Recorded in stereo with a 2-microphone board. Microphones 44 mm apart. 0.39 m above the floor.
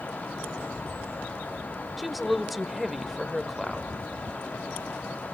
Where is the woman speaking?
Centre (ahead or behind), 1.0 m.